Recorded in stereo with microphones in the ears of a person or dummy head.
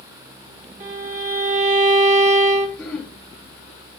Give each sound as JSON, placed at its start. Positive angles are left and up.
{"t": 0.8, "sound": "a violin", "side_deg": -45, "distance_m": 1.3}
{"t": 2.8, "sound": "throat clearing", "side_deg": 5, "distance_m": 3.0}